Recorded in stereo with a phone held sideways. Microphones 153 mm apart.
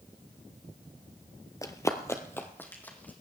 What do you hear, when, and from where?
1.6 s running footsteps: 20° left (ahead or behind), 0.9 m; by 3.1 s 10° left (ahead or behind), 2 m